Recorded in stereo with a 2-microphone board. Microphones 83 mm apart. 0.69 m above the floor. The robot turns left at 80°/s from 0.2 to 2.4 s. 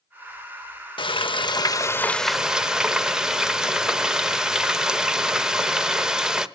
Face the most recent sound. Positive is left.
turn(degrees=-10)